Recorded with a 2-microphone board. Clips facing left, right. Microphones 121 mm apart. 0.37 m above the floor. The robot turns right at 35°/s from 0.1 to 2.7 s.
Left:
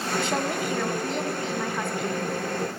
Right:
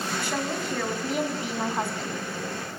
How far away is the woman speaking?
About 3.5 m.